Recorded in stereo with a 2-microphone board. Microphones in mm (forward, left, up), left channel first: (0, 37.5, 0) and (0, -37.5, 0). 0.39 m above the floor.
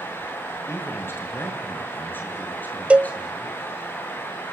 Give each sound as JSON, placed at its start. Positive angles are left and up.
{"t": 0.7, "sound": "a man speaking", "side_deg": 30, "distance_m": 7.0}
{"t": 2.9, "sound": "a cowbell", "side_deg": -15, "distance_m": 0.6}